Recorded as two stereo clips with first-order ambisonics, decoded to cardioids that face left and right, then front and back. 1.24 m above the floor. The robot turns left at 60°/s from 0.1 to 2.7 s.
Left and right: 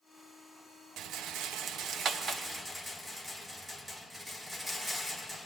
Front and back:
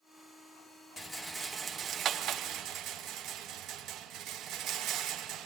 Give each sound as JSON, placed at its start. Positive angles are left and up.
{"t": 1.0, "sound": "a rattle", "azimuth_deg": -70, "distance_m": 0.6}